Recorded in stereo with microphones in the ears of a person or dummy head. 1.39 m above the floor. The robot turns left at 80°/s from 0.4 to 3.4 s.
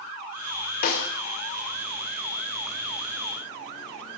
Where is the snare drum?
45° left (ahead or behind), 1.4 m.